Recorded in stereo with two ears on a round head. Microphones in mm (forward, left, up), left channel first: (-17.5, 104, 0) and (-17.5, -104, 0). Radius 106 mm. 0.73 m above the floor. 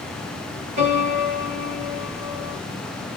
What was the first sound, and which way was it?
A piano, 80° right.